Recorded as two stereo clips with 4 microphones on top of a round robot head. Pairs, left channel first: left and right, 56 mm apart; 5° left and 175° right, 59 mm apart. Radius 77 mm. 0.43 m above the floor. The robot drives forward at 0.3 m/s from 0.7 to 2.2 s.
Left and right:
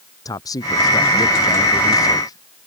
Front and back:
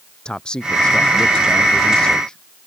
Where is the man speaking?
80° left; by 2.4 s 85° left.